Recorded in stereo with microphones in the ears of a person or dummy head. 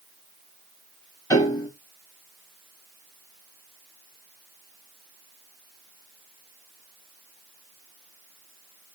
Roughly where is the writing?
No writing in this recording.